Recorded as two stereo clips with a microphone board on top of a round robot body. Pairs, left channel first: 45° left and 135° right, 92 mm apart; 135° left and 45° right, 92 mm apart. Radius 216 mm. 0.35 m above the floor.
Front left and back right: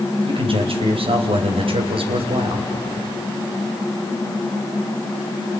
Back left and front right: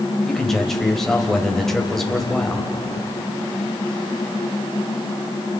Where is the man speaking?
140° right, 3 m.